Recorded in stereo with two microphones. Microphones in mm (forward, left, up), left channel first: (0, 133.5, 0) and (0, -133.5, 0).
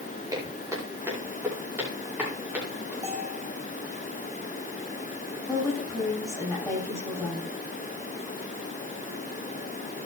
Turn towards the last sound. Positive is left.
turn(degrees=10)  # may be behind; listen again after turning